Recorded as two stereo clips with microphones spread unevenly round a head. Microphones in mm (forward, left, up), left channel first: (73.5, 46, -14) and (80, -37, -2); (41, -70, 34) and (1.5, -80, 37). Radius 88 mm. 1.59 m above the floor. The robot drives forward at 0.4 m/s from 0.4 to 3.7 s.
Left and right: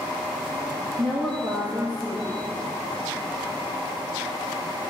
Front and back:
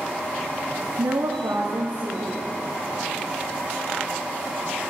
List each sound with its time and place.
1.0 s a woman speaking: 150° right, 0.8 m; by 2.4 s 165° right, 1.3 m